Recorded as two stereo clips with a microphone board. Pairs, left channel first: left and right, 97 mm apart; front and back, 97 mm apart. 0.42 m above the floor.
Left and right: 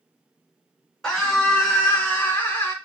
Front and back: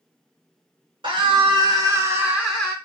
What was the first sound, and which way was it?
A scream, 175° left.